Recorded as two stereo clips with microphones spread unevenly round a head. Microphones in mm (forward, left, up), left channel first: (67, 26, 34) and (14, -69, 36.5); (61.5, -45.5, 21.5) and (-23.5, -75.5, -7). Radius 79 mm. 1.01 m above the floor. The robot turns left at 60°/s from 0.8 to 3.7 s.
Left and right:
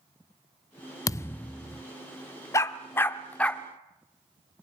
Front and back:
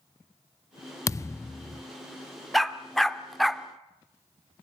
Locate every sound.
1.1 s a thud: 10° left, 0.5 m; by 1.8 s 35° right, 0.5 m
2.5 s a dog barking: 50° left, 0.6 m; by 3.6 s 15° right, 0.6 m